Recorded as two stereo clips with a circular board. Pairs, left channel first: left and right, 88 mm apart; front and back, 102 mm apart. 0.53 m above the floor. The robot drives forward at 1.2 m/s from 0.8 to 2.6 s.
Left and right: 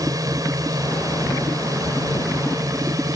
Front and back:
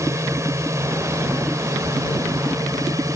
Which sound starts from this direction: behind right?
A drone, at 0.0 s.